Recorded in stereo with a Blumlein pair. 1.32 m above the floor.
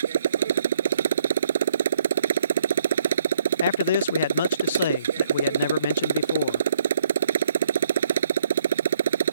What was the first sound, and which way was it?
A motorcycle, 65° right.